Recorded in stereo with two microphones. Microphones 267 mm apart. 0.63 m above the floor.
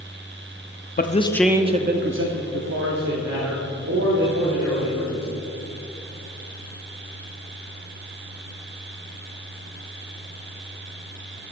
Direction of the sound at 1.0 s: 35° left (ahead or behind).